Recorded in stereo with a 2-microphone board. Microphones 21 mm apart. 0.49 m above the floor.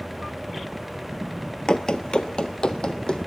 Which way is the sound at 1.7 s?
40° left (ahead or behind).